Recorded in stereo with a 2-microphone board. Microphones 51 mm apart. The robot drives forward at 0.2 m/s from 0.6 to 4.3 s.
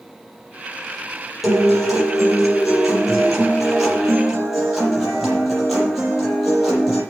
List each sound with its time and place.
1.4 s a guitar: centre (ahead or behind), 7 m